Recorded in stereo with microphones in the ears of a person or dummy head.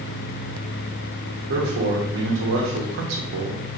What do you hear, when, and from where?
1.5 s a man speaking: 65° right (ahead or behind), 0.8 m